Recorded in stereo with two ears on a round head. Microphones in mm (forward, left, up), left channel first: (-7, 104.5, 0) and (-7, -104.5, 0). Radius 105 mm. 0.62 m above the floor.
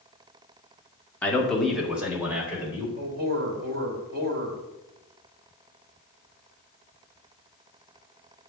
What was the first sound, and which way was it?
A man speaking, 5° left (ahead or behind).